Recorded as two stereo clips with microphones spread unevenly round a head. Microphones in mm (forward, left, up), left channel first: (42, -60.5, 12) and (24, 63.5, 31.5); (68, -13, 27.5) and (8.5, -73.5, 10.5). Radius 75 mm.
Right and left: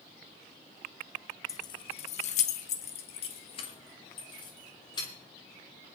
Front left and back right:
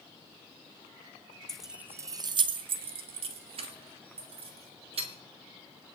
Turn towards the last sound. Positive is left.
turn(degrees=-145)